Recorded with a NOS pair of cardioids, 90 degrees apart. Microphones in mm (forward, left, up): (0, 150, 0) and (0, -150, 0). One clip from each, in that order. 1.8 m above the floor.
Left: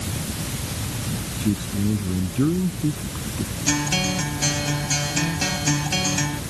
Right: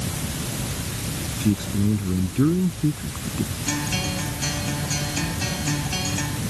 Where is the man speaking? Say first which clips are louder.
Right 1 dB; 20° right.